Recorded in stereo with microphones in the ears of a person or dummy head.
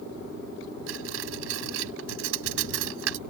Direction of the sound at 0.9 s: 70° right (ahead or behind).